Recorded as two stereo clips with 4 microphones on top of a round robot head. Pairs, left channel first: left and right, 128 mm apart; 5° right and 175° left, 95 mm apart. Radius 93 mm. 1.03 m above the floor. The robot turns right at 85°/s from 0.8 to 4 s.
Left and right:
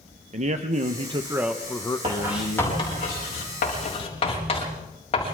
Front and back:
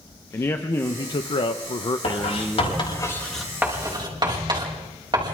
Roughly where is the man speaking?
Ahead right.